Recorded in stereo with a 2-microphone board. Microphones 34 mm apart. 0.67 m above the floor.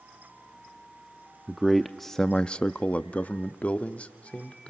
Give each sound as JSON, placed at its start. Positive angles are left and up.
{"t": 1.5, "sound": "a man speaking", "side_deg": -10, "distance_m": 0.8}